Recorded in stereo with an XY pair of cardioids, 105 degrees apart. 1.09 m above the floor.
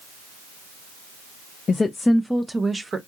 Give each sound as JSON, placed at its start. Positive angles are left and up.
{"t": 1.7, "sound": "a woman speaking", "azimuth_deg": 40, "distance_m": 0.5}